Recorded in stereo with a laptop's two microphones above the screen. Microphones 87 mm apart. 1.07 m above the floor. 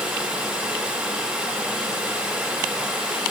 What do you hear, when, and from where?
0.0 s running water: 10° right (ahead or behind), 3 m